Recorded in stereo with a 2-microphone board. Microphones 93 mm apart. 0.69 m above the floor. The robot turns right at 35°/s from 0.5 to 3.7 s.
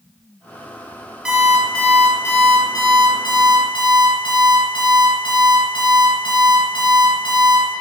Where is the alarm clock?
15° right, 2 m; by 7.7 s 70° left, 2 m.